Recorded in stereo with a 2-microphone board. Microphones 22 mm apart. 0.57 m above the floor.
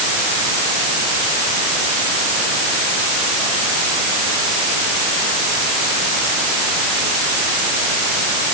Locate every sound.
Only background noise.